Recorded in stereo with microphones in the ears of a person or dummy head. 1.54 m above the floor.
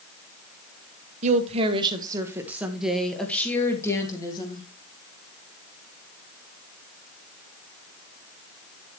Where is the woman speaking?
40° right (ahead or behind), 1.4 m; by 4.7 s 25° left (ahead or behind), 2 m.